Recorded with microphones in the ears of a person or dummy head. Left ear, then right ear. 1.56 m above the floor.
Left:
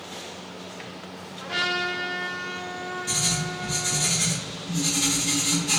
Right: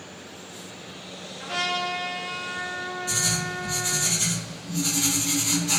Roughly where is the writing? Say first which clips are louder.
Even; centre.